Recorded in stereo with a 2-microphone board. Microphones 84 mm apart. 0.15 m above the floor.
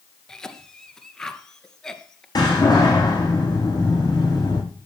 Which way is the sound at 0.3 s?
5° left (ahead or behind).